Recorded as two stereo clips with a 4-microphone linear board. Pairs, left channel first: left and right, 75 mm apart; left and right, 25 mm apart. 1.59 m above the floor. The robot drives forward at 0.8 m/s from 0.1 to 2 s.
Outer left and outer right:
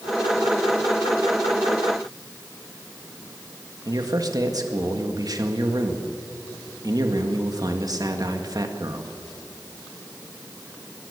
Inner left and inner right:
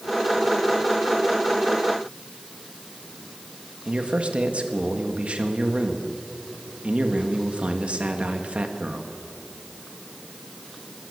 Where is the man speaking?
55° right (ahead or behind), 2 m.